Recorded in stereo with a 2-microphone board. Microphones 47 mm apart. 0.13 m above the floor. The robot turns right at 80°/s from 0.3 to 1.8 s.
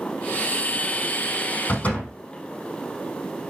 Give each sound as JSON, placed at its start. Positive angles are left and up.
{"t": 1.7, "sound": "a door slam", "side_deg": 40, "distance_m": 4.0}